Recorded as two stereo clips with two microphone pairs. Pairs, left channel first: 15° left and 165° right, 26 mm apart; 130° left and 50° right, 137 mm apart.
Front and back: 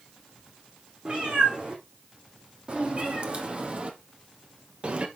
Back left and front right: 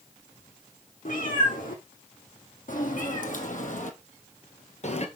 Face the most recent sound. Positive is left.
turn(degrees=160)